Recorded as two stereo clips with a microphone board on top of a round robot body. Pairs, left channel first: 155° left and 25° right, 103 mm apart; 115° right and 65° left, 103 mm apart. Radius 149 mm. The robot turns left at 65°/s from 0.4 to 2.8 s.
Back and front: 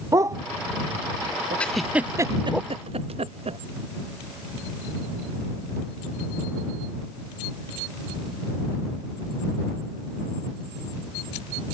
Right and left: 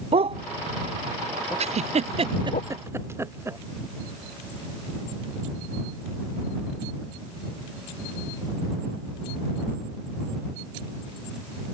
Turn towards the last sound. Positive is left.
turn(degrees=0)